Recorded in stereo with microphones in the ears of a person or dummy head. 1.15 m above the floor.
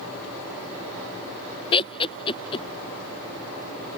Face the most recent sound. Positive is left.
turn(degrees=25)  # may be behind; listen again after turning